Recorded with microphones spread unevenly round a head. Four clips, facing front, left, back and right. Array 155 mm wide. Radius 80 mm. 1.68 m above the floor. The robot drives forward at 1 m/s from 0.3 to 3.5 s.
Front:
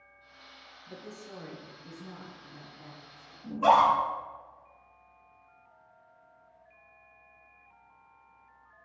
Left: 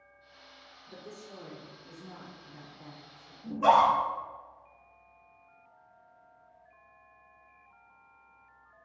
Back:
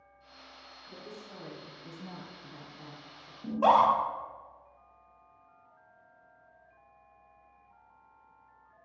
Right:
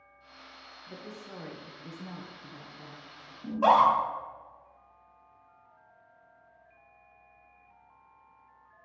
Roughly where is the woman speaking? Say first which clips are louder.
Right 2 dB, front 2 dB; ahead right.